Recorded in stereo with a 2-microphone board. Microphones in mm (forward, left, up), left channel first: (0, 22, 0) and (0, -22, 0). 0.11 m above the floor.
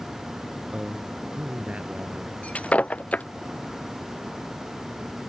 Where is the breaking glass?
30° left (ahead or behind).